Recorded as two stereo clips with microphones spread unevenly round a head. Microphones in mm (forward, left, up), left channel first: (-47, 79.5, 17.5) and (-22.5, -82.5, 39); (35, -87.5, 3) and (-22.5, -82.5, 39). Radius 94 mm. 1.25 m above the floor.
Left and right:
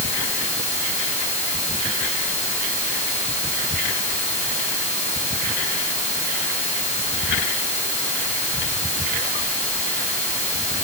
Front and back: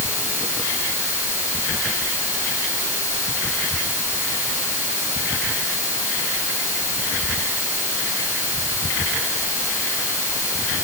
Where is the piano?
No piano in this recording.